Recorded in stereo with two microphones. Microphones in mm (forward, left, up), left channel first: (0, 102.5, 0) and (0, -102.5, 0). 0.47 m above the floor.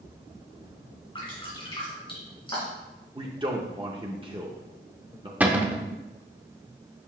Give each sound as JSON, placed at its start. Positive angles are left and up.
{"t": 1.1, "sound": "dripping", "side_deg": 25, "distance_m": 2.5}
{"t": 3.1, "sound": "a man speaking", "side_deg": -25, "distance_m": 0.7}
{"t": 5.4, "sound": "a cupboard door", "side_deg": -10, "distance_m": 0.6}